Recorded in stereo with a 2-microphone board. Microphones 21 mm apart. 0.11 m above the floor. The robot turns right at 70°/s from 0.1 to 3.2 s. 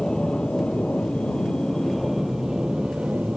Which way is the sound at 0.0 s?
35° left.